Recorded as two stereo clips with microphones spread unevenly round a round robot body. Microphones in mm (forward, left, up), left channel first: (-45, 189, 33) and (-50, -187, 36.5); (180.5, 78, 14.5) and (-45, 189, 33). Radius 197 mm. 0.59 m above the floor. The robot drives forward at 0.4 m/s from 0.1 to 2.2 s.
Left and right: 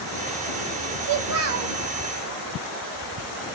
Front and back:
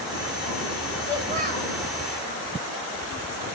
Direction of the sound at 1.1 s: 125° right.